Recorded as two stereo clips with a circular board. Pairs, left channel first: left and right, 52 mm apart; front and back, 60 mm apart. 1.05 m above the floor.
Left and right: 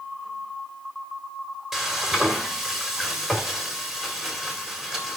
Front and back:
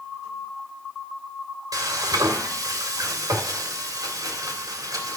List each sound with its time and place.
1.7 s frying: 170° right, 2.5 m